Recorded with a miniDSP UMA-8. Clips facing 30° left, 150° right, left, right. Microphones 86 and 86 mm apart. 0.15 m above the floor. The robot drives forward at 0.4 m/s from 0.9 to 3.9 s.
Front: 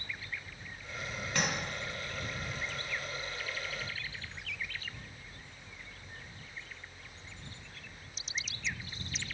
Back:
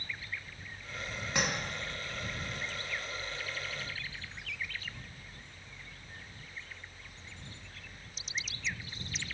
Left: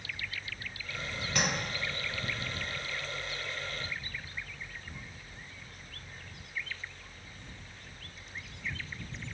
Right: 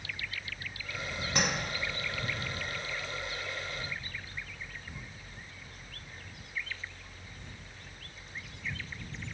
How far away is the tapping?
About 1.3 m.